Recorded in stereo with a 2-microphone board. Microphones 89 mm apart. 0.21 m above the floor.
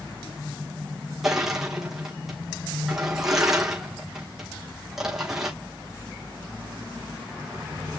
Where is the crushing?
Centre (ahead or behind), 3 m.